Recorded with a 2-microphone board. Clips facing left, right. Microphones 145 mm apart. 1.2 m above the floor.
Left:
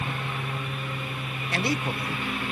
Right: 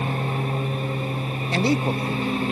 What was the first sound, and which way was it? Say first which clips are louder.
A lawn mower: right 7 dB; 35° right (ahead or behind).